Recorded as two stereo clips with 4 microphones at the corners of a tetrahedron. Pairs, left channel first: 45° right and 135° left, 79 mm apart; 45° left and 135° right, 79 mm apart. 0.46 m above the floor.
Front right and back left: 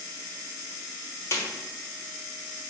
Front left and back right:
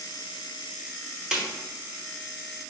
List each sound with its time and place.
1.3 s a snare drum: 60° right, 1.1 m